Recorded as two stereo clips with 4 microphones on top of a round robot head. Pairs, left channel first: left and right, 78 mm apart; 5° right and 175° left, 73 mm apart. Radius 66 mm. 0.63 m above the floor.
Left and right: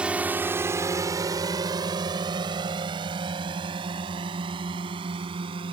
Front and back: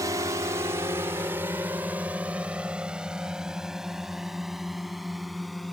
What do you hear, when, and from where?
0.0 s a drone: 160° right; by 5.7 s 95° right